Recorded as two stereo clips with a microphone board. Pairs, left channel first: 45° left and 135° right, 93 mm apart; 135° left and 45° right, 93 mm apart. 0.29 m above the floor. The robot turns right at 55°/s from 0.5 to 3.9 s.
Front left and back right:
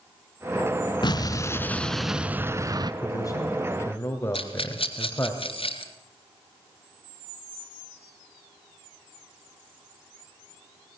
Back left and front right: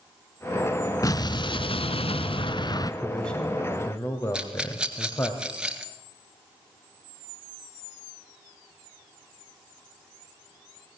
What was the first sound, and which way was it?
An explosion, 80° left.